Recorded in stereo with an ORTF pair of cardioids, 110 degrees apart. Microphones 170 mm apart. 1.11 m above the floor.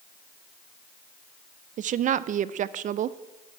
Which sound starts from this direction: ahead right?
A woman speaking, at 1.8 s.